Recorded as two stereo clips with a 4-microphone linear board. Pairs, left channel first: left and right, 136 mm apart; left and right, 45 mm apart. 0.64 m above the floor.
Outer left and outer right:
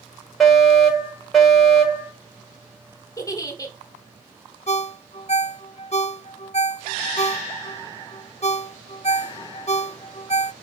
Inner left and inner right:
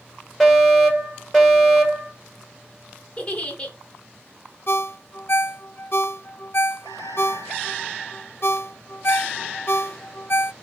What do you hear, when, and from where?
0.4 s a fire alarm: centre (ahead or behind), 4.5 m
3.2 s a giggle: 25° left (ahead or behind), 1.9 m
4.7 s a ringtone: 50° left (ahead or behind), 0.5 m